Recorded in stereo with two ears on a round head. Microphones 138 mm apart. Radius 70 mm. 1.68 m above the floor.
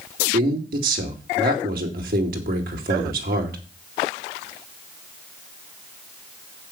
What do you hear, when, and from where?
0.3 s a man speaking: 65° right (ahead or behind), 2.5 m